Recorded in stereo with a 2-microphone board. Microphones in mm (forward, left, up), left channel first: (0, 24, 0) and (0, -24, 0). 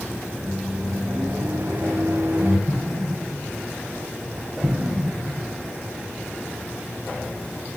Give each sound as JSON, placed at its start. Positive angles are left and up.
{"t": 0.4, "sound": "a microwave", "side_deg": -75, "distance_m": 4.5}
{"t": 2.7, "sound": "an explosion", "side_deg": -60, "distance_m": 4.5}